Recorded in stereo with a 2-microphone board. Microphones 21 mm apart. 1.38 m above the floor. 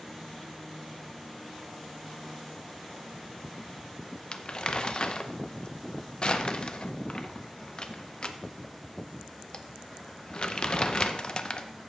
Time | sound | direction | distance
4.3 | crumpling | 40° left (ahead or behind) | 0.6 m